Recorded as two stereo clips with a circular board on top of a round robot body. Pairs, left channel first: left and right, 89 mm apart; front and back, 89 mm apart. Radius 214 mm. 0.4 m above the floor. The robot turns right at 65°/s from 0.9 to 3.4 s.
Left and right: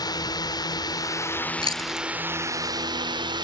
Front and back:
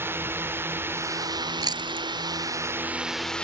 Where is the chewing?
130° left; by 2.1 s 160° left.